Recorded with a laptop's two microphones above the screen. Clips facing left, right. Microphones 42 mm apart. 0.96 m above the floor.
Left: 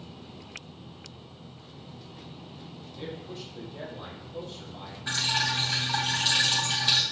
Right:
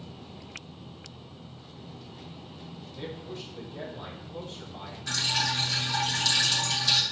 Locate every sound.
3.0 s a man speaking: 5° left (ahead or behind), 2.5 m; by 5.0 s 5° right (ahead or behind), 1.2 m
5.1 s dripping: 25° left (ahead or behind), 3 m